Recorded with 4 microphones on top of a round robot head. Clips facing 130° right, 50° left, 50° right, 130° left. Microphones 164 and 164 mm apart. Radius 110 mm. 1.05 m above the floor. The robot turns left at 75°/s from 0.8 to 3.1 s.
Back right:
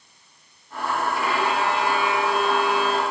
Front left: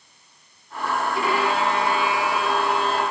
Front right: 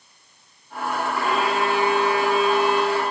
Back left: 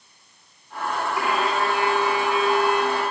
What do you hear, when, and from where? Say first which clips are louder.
1.1 s a violin: front left 3 dB, front right 1 dB; 55° left, 2.5 m; by 3.0 s 85° right, 2.5 m